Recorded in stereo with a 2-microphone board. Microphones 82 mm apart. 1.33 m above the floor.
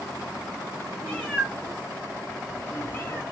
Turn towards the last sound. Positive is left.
turn(degrees=30)  # may be behind; listen again after turning